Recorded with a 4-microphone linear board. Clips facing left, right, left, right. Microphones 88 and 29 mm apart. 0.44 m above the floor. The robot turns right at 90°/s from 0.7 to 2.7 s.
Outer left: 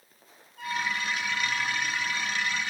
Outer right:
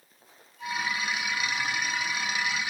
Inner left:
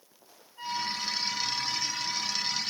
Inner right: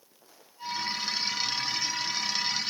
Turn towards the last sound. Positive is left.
turn(degrees=-65)